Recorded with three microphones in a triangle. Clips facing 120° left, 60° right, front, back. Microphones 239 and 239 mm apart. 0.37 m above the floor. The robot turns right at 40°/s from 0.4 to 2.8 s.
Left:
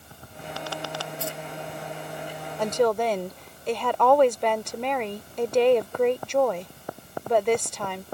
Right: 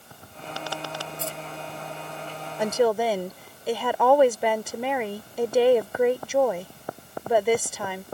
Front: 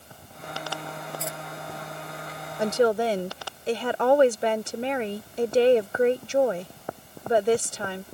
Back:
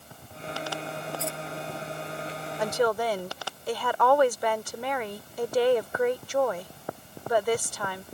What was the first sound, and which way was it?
Keys jangling, 90° right.